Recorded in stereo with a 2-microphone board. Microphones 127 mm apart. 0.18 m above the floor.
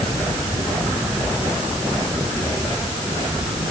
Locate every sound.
Only background noise.